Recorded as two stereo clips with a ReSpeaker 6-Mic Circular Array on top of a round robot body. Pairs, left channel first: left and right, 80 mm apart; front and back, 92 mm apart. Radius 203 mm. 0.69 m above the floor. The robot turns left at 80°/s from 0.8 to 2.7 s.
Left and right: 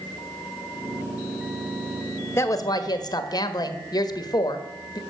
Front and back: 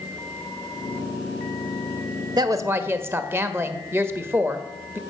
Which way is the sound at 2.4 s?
145° left.